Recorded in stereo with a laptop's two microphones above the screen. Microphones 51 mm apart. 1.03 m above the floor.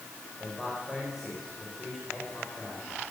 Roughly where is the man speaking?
Centre.